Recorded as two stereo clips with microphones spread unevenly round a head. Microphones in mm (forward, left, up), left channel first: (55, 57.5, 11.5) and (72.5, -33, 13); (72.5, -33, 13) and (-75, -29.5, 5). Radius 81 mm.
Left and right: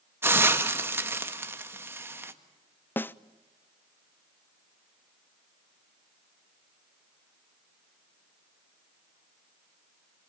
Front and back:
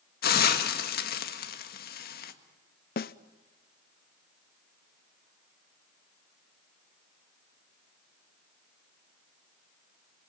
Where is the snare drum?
30° left, 0.7 m.